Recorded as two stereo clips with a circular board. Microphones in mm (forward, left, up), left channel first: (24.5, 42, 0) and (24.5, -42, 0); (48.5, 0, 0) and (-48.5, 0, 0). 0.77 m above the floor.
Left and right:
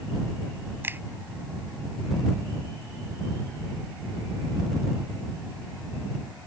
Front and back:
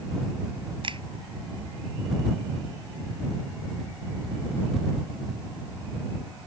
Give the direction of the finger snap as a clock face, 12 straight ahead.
5 o'clock.